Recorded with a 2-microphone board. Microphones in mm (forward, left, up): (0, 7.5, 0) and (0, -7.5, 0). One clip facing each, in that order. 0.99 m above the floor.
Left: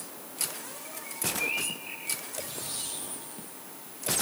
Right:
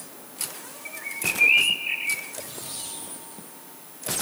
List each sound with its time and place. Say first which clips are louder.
0.8 s a bird: right 8 dB; 55° right (ahead or behind)